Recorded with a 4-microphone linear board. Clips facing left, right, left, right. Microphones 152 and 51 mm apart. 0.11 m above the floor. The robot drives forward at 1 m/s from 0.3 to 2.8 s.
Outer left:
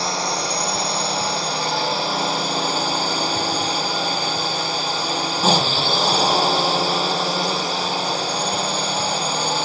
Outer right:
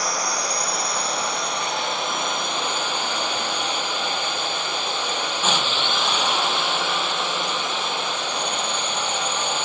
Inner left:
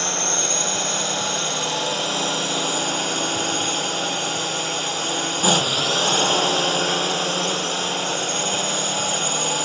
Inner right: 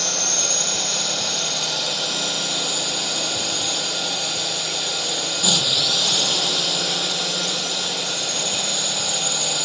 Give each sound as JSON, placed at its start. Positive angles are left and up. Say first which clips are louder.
{"t": 0.0, "sound": "a drone", "louder": "outer left 3 dB, inner left 2 dB", "side_deg": 30}